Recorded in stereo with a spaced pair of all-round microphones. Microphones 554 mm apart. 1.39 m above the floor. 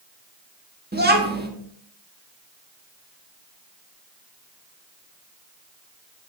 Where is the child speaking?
15° right (ahead or behind), 1.3 m.